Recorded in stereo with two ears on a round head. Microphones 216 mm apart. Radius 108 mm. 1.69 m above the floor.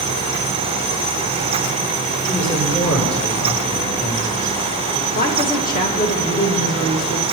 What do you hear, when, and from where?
2.2 s a man speaking: 5° left (ahead or behind), 6.5 m
5.2 s a woman speaking: 35° left (ahead or behind), 2 m